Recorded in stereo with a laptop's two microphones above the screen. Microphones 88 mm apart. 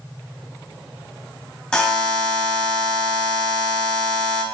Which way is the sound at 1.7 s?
10° left (ahead or behind).